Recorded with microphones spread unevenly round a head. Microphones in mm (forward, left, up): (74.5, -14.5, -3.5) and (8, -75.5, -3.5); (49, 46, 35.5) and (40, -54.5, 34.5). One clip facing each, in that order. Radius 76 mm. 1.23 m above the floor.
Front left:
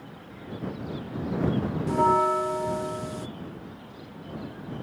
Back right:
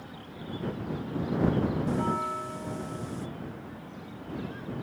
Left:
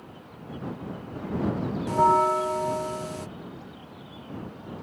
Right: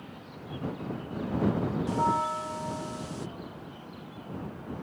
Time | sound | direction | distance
1.9 | a bell | 65° left | ?